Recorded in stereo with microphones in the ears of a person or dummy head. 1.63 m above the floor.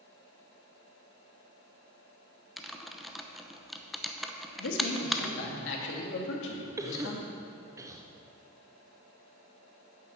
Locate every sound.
2.6 s typing on a keyboard: centre (ahead or behind), 0.9 m
4.6 s a man speaking: 75° left (ahead or behind), 2.5 m
6.8 s a cough: 15° right (ahead or behind), 1.0 m